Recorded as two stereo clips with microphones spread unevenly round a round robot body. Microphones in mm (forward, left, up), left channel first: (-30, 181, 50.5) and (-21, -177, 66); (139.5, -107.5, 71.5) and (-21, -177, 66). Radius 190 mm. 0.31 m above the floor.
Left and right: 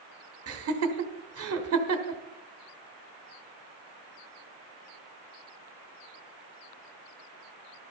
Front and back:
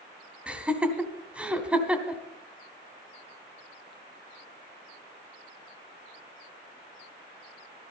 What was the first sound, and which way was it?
Laughter, 80° right.